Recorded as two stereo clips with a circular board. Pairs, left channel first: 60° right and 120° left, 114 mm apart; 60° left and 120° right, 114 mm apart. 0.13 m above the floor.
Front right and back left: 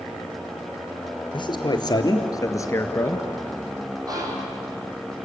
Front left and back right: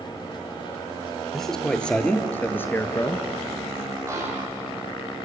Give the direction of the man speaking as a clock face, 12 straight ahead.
1 o'clock.